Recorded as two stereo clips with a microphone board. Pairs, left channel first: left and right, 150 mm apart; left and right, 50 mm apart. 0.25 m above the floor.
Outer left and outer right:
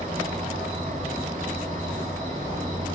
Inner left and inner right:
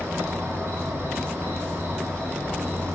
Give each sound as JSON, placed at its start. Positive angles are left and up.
{"t": 0.0, "sound": "an insect", "side_deg": -65, "distance_m": 0.8}